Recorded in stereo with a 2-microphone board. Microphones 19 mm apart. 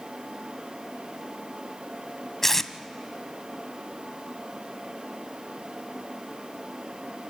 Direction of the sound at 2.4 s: 15° left (ahead or behind).